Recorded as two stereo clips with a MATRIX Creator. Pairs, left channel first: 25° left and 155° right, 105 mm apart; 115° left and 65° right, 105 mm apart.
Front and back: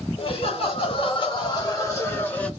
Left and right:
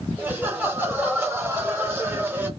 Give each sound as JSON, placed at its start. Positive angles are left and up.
{"t": 0.2, "sound": "laughter", "azimuth_deg": 5, "distance_m": 2.0}